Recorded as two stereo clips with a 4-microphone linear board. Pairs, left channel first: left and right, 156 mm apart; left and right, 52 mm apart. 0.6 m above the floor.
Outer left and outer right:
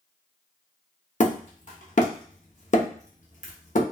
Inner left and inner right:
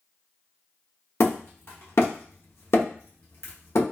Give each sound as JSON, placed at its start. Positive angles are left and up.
{"t": 1.2, "sound": "hammering", "side_deg": 55, "distance_m": 0.7}